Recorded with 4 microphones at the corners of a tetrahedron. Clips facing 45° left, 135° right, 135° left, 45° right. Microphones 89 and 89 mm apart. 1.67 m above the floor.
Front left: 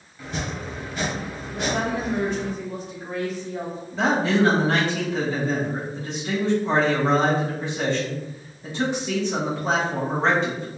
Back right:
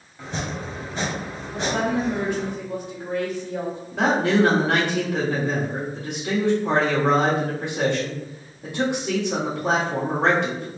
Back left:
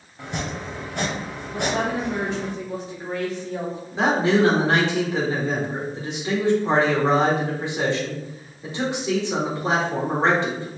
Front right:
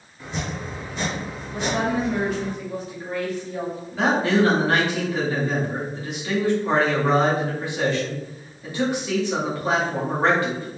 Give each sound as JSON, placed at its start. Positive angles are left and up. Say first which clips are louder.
{"t": 0.2, "sound": "chopping", "louder": "back right 1 dB, back left 1 dB", "azimuth_deg": 165, "distance_m": 1.0}
{"t": 1.5, "sound": "a woman speaking", "louder": "back right 2 dB, front right 1 dB", "azimuth_deg": -165, "distance_m": 1.7}
{"t": 3.9, "sound": "a man speaking", "louder": "back right 2 dB, back left 1 dB", "azimuth_deg": -160, "distance_m": 1.6}